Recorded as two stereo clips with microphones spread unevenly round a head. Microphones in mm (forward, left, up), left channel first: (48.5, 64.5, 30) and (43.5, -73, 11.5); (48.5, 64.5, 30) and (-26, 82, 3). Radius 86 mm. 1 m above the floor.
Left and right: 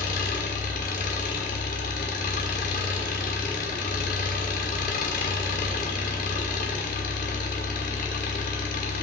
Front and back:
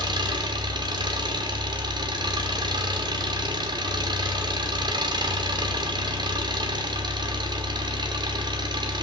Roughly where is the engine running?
Behind left.